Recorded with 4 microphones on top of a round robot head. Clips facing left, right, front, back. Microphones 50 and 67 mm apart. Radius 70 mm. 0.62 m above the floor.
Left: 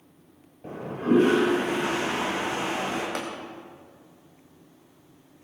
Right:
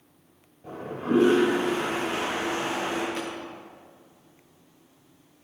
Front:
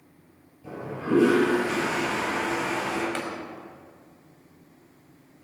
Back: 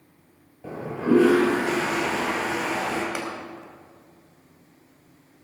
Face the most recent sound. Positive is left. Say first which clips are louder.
# left 1 dB, back 1 dB
turn(degrees=100)